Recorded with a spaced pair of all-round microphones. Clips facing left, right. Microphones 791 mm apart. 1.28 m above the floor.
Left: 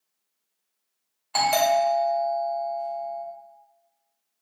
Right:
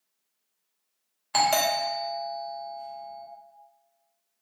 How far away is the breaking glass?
I don't hear breaking glass.